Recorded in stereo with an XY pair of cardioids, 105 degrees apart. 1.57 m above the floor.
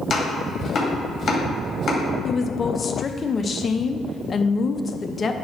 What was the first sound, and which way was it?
Chopping, 45° left.